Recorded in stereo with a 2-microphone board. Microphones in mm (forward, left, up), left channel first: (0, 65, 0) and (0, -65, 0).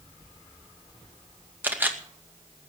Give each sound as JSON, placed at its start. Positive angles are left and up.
{"t": 1.6, "sound": "a camera shutter", "side_deg": -15, "distance_m": 2.0}